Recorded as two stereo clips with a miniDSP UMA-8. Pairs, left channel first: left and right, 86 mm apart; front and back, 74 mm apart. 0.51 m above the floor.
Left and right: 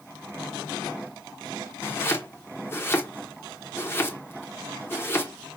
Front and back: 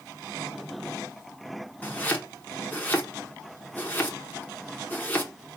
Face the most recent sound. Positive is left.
turn(degrees=50)